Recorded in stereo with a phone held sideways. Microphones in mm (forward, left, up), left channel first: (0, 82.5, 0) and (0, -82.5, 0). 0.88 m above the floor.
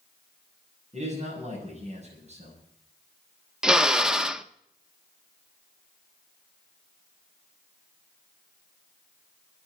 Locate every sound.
0.9 s a man speaking: 40° right (ahead or behind), 7 m
3.6 s a drill: 5° right (ahead or behind), 0.7 m